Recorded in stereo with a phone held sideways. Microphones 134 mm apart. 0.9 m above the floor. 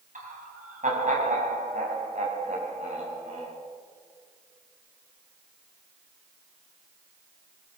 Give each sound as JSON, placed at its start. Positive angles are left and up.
{"t": 0.1, "sound": "laughter", "side_deg": -70, "distance_m": 7.5}